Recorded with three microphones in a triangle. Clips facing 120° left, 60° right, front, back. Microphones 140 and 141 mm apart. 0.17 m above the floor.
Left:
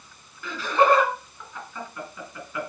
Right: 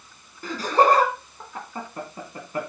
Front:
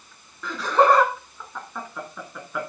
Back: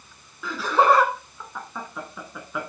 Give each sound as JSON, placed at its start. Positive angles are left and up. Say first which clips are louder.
{"t": 0.4, "sound": "laughter", "louder": "right 1 dB, front 1 dB", "azimuth_deg": -95, "distance_m": 1.6}